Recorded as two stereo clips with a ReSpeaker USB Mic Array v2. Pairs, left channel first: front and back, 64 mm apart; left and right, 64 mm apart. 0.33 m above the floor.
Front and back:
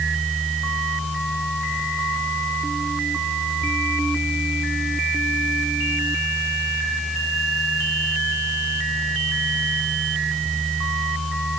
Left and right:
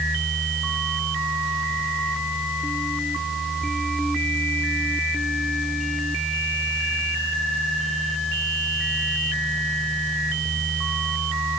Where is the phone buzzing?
No phone buzzing in this recording.